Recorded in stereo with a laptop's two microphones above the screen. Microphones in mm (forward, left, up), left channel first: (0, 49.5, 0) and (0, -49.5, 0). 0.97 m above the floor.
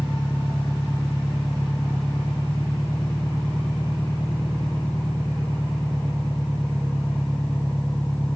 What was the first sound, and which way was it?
An engine running, 10° left (ahead or behind).